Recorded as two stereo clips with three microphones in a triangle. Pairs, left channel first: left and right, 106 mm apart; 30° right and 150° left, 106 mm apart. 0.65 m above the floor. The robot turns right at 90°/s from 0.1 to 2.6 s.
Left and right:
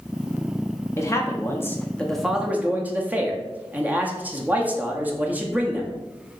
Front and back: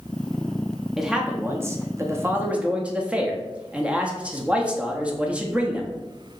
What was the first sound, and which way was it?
A man speaking, 65° left.